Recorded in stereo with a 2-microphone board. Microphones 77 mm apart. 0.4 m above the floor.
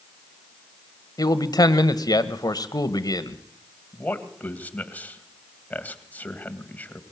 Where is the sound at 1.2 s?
60° left (ahead or behind), 1.6 m.